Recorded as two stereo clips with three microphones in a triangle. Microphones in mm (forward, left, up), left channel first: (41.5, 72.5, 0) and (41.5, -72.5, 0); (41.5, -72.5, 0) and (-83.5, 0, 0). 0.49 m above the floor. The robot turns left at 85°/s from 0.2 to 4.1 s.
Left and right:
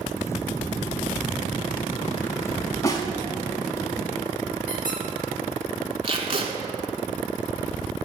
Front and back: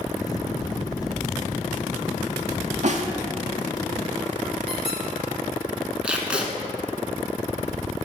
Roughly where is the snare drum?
Behind left.